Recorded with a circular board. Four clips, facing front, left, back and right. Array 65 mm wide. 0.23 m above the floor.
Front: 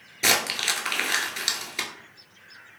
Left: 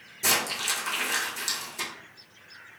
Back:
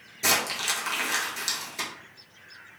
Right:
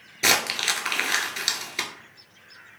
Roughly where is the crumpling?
Ahead right.